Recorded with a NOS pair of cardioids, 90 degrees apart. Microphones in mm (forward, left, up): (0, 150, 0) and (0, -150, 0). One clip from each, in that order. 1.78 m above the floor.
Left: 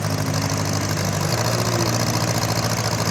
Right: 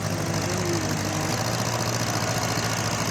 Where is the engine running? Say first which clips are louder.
Left 3 dB; 40° left.